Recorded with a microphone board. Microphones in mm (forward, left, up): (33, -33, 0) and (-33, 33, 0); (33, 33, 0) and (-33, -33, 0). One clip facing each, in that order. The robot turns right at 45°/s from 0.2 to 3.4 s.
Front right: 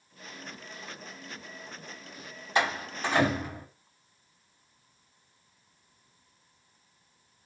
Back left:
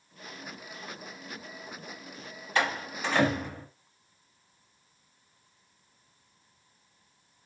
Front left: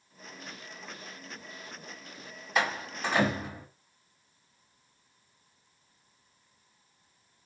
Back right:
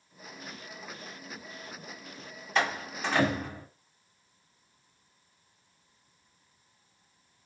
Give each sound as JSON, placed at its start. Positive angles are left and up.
{"t": 2.5, "sound": "a door slam", "azimuth_deg": -30, "distance_m": 1.1}